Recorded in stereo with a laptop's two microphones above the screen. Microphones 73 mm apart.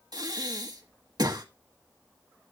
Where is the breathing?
70° right (ahead or behind), 1.5 m.